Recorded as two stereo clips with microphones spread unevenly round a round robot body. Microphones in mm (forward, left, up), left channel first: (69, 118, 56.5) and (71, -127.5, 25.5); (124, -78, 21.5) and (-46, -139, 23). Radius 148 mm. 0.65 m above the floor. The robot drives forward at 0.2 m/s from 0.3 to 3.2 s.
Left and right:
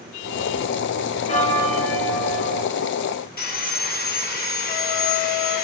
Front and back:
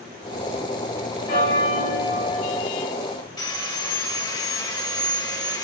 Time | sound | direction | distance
1.3 | a bell | 30° left | 1.4 m
3.4 | sawing | 65° left | 1.0 m